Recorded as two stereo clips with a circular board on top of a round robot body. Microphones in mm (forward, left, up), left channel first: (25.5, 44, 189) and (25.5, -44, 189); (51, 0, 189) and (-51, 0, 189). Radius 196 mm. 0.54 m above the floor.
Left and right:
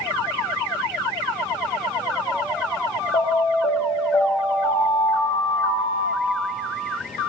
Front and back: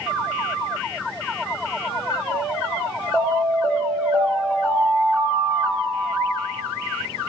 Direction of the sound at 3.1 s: 85° left.